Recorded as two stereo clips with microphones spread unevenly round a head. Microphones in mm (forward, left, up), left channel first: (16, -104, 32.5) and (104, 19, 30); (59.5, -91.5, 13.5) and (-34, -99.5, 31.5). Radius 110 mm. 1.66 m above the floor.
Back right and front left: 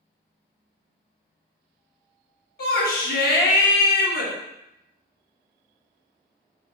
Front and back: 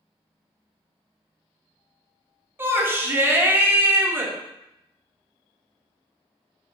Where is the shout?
115° right, 1.0 m.